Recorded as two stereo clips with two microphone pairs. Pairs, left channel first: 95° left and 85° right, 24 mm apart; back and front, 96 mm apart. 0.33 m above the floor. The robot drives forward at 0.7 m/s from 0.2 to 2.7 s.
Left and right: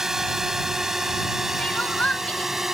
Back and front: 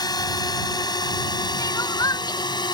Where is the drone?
150° right; by 2.7 s 155° right.